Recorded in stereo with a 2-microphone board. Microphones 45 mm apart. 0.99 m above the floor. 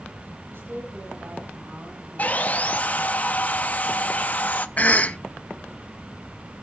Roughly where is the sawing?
Left.